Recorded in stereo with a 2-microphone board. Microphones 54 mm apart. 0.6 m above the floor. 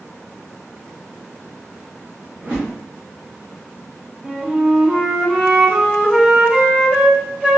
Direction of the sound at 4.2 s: 30° right (ahead or behind).